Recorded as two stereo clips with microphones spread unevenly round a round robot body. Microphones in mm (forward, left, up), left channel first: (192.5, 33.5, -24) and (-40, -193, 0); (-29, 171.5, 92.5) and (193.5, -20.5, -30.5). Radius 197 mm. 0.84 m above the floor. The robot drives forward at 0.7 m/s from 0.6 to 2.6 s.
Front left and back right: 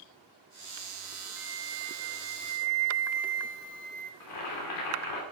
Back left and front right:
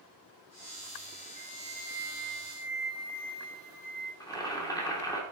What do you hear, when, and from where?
1.4 s a flute: 85° right, 1.6 m; by 4.1 s 115° right, 1.7 m
4.2 s boiling: 55° left, 2.5 m